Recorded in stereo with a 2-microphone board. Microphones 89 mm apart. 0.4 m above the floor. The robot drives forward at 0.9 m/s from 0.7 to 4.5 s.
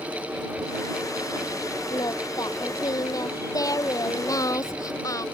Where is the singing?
45° left (ahead or behind); by 5.2 s 40° left (ahead or behind).